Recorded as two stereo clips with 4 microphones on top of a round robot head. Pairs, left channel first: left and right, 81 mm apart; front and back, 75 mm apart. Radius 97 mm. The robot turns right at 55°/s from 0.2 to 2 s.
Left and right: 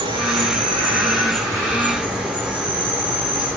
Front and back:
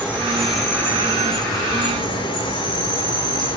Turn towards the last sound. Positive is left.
turn(degrees=-5)